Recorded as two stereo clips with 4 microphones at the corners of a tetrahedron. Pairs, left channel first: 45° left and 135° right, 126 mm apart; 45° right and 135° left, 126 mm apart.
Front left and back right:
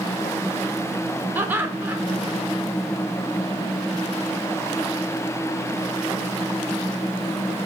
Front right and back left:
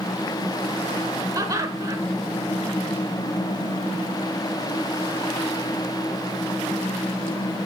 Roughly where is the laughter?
Behind.